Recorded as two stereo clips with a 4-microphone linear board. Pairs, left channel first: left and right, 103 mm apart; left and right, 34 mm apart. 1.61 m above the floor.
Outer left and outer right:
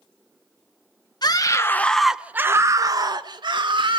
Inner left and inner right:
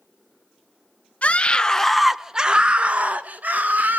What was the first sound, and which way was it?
A scream, 45° left (ahead or behind).